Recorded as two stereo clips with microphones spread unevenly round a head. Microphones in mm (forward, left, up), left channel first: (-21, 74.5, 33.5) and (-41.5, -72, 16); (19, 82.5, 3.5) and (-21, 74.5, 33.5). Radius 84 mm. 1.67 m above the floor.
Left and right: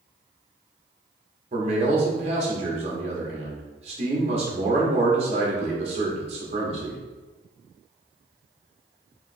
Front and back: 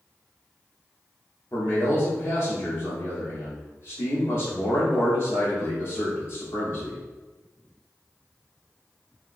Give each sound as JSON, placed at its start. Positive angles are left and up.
{"t": 1.5, "sound": "a man speaking", "azimuth_deg": -40, "distance_m": 0.9}